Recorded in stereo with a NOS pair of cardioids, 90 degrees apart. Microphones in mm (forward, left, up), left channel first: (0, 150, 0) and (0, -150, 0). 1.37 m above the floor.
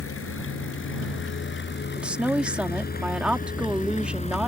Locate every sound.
0.0 s a vehicle: 45° left; by 4.5 s 20° left
2.0 s a woman speaking: 5° right